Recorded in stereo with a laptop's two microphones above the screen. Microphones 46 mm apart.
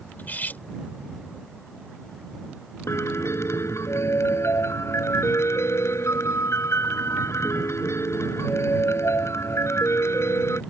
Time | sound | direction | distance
0.2 | cutlery clinking | 40° left (ahead or behind) | ?
2.9 | a piano | 85° left | ?